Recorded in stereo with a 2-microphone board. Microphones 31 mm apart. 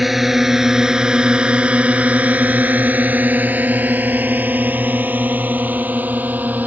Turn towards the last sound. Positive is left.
turn(degrees=-65)  # may be behind; listen again after turning